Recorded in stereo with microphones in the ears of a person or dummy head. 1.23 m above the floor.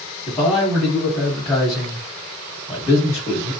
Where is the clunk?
No clunk in this recording.